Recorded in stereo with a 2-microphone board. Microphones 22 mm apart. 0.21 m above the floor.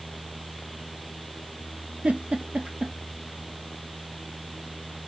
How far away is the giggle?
About 0.8 m.